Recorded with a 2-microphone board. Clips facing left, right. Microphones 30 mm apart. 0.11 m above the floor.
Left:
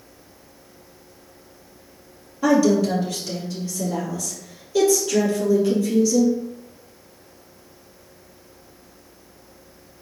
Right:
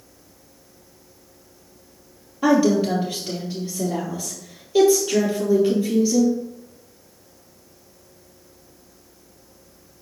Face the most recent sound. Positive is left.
turn(degrees=-25)  # may be behind; listen again after turning